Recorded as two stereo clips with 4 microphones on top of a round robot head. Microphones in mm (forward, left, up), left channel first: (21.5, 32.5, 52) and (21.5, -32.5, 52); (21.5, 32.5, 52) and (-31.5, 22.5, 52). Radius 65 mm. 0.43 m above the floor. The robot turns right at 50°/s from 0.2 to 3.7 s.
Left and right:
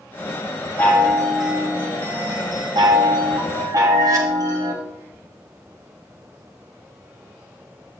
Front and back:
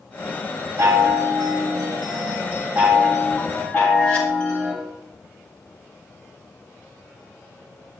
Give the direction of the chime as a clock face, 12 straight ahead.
7 o'clock.